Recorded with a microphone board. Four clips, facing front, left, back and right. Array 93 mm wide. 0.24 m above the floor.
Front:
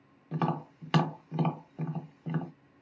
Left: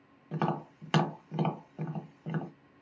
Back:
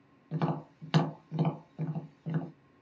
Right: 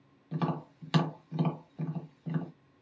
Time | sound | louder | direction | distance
0.3 | tapping | left 2 dB, front 2 dB | 60° left | 1.2 m